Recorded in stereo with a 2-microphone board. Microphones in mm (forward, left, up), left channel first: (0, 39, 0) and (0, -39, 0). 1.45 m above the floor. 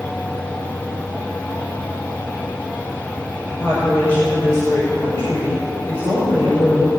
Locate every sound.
3.5 s a woman speaking: 60° left (ahead or behind), 5 m